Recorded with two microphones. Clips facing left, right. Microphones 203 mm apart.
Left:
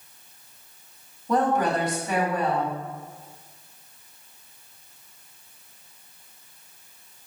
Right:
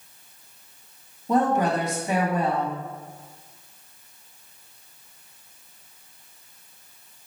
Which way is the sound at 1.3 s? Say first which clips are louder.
Right 1 dB; 25° right (ahead or behind).